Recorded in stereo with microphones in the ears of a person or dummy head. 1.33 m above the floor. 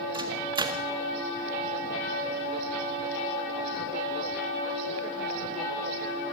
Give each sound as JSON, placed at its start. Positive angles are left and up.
{"t": 0.1, "sound": "a microwave", "side_deg": -25, "distance_m": 1.6}